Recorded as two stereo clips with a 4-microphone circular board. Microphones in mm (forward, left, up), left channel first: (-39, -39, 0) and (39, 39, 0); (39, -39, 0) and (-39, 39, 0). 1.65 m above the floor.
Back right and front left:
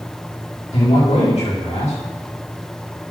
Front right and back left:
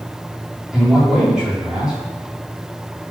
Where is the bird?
I don't hear a bird.